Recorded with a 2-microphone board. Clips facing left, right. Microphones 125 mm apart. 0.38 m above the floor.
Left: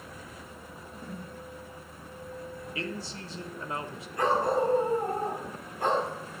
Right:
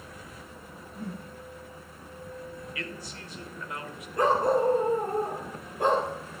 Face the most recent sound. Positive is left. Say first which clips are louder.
# right 2 dB
turn(degrees=-45)  # may be behind; listen again after turning